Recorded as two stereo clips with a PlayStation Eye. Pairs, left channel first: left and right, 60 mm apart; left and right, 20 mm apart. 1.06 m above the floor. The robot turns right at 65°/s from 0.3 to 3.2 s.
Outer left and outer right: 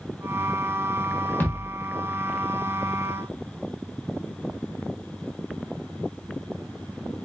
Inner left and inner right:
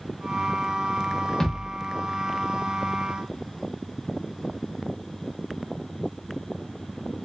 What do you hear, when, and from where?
1.4 s a thud: 35° left (ahead or behind), 0.9 m; by 1.8 s 15° left (ahead or behind), 0.9 m